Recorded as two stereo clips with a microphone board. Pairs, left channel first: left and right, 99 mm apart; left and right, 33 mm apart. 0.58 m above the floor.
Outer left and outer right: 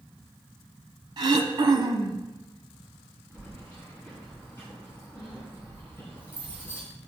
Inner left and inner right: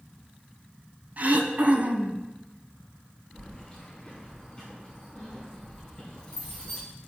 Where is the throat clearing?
45° right (ahead or behind), 0.6 m.